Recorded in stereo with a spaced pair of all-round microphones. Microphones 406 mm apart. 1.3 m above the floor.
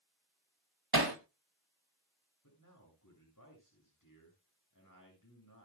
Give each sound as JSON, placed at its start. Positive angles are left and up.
{"t": 0.9, "sound": "hammering", "side_deg": -60, "distance_m": 1.9}
{"t": 2.4, "sound": "a man speaking", "side_deg": 50, "distance_m": 8.0}